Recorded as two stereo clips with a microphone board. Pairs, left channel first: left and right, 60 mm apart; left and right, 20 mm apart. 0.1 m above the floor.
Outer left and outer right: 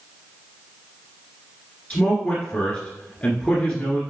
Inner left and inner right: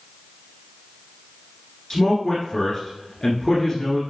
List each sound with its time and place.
1.9 s a man speaking: 20° left (ahead or behind), 1.6 m